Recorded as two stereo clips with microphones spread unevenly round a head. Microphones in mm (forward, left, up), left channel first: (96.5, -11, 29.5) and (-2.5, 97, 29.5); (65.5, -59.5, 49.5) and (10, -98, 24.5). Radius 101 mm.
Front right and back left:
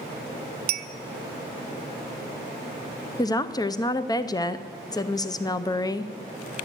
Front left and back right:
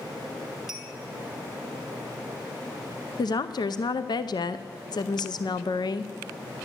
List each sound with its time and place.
0.7 s a clink: 120° left, 0.7 m
3.2 s a woman speaking: 10° left, 0.6 m